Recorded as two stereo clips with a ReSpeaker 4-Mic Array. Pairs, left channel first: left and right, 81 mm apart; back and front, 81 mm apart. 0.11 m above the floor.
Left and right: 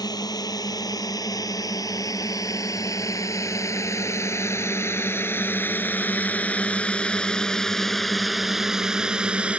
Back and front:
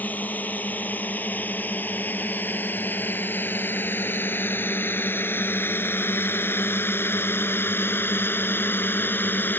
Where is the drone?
110° left; by 9.6 s 150° right.